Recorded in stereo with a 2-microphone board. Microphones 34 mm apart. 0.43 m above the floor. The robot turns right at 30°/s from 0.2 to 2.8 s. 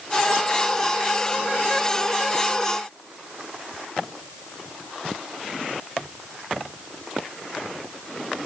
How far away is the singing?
I don't hear singing.